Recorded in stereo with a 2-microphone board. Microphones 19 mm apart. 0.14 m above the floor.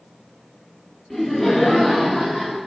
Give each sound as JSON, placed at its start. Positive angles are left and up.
{"t": 1.1, "sound": "laughter", "side_deg": 20, "distance_m": 1.3}